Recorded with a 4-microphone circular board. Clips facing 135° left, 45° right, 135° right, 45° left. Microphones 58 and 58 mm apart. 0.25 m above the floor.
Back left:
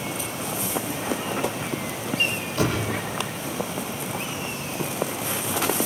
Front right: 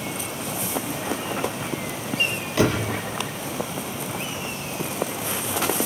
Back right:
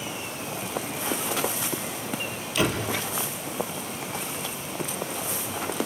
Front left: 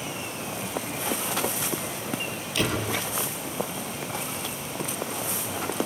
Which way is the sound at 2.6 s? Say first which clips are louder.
Front right 4 dB, back right 2 dB; 50° right.